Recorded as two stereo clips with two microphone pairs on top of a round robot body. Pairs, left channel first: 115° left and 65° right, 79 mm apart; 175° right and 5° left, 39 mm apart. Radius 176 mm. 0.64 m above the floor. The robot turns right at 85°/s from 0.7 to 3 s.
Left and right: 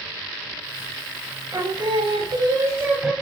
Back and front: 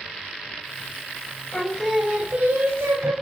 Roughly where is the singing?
Behind right.